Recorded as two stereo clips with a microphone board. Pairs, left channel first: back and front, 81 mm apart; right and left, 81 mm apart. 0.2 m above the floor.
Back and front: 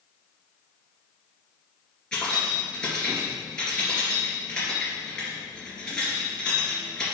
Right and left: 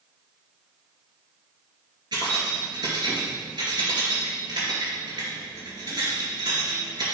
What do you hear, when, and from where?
2.1 s keys jangling: 100° left, 2.5 m